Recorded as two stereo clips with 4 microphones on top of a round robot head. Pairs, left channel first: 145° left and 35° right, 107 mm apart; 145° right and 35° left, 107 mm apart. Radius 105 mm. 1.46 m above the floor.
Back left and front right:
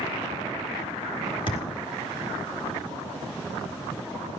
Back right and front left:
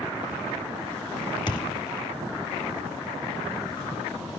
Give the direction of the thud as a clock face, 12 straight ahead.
6 o'clock.